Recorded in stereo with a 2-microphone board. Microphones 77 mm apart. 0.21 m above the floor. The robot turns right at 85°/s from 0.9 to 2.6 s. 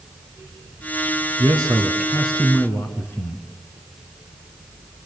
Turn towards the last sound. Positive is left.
turn(degrees=30)